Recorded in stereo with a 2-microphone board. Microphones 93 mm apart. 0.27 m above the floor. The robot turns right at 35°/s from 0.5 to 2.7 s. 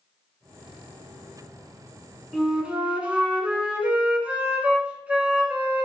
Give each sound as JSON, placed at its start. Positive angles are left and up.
{"t": 2.3, "sound": "a flute", "side_deg": 0, "distance_m": 0.6}